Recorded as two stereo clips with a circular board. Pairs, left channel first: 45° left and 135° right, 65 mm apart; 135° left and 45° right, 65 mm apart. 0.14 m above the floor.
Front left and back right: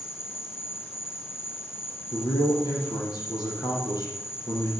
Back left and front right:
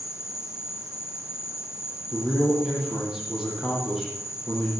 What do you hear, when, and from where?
0.0 s an insect: 95° left, 1.6 m
2.1 s a man speaking: 40° left, 5.5 m